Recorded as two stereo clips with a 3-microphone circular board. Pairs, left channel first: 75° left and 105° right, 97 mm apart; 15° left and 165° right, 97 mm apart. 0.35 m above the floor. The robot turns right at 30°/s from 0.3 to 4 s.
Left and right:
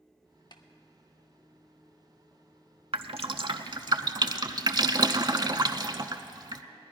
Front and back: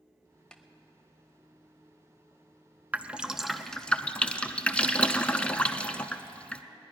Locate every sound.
0.5 s tapping: 95° left, 0.8 m; by 0.6 s 100° left, 0.8 m
2.9 s dripping: 90° right, 0.6 m; by 6.6 s 60° right, 0.6 m